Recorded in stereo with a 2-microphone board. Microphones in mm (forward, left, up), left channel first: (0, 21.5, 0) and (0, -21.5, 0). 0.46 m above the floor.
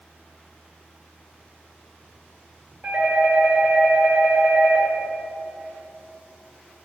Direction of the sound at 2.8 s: 30° right (ahead or behind).